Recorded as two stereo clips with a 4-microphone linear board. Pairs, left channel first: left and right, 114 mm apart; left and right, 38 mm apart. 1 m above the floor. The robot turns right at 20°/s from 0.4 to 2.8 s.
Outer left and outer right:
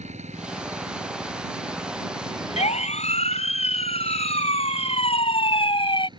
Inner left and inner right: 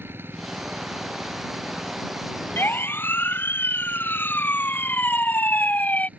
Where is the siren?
70° left (ahead or behind); by 6.1 s 50° left (ahead or behind).